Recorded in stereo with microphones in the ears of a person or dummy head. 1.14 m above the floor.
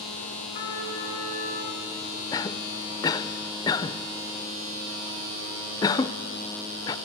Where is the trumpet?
35° left (ahead or behind), 5.5 m.